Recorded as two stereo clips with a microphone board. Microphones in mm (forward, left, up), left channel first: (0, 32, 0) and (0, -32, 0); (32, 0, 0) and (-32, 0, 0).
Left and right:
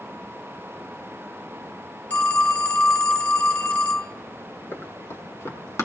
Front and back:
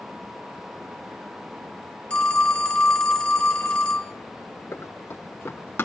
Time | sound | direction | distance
2.1 | a phone ringing | 55° left | 0.7 m
4.7 | running footsteps | 45° left | 4 m